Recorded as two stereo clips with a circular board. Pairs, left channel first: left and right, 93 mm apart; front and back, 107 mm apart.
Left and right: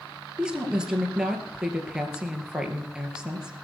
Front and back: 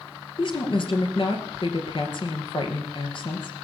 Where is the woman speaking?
10° right, 2 m.